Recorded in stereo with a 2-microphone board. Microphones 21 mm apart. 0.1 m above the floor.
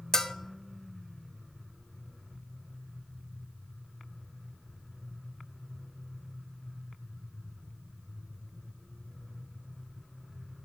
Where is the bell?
25° left (ahead or behind), 0.5 m.